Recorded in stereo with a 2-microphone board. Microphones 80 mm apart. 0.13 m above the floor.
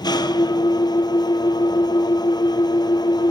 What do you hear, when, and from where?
0.0 s an engine running: 60° left (ahead or behind), 1.3 m